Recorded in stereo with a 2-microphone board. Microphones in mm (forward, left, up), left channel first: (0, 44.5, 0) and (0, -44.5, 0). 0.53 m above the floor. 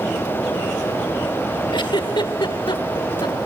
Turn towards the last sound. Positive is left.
turn(degrees=60)  # may be behind; listen again after turning